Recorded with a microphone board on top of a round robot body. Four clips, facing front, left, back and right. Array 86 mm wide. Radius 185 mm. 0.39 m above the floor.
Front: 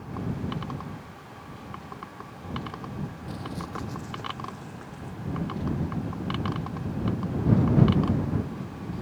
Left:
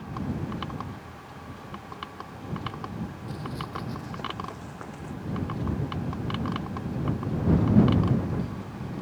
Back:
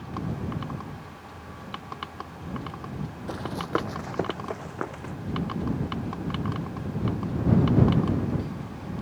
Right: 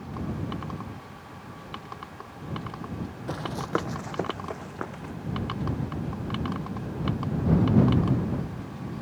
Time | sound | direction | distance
3.3 | running footsteps | 120° right | ?